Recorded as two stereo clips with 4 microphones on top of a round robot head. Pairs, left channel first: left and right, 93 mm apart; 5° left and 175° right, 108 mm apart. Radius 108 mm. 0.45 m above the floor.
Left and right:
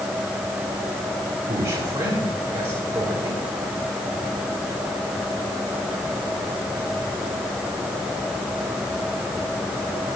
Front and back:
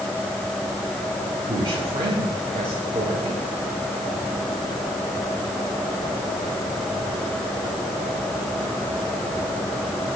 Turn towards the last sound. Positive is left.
turn(degrees=-145)